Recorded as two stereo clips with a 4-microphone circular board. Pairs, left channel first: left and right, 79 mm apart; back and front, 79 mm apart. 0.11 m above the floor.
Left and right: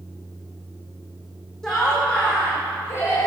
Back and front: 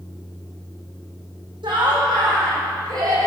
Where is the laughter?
10° left, 5.5 m; by 3.3 s 40° left, 5 m.